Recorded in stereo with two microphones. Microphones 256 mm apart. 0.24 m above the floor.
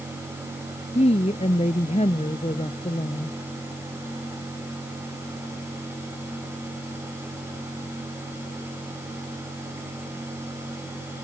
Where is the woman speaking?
25° left (ahead or behind).